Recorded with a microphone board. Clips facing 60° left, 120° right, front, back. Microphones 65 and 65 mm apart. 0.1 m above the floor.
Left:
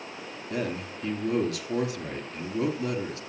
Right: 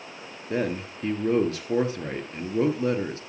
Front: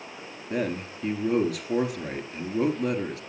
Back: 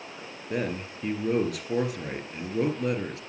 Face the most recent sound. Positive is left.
turn(degrees=-90)